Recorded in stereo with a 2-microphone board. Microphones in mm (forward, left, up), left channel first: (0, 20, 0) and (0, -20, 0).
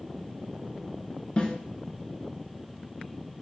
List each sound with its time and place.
1.4 s a snare drum: 25° left (ahead or behind), 1.1 m